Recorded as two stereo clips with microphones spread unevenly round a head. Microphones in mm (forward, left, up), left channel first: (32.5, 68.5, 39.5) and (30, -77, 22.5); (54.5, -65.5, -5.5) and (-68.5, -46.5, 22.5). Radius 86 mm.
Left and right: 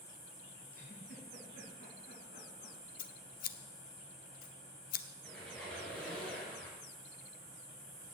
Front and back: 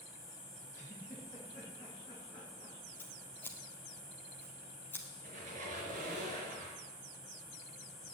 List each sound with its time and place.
0.7 s a giggle: 60° left, 4 m
3.0 s scissors: 75° left, 0.6 m
5.2 s a squeak: 170° left, 4.5 m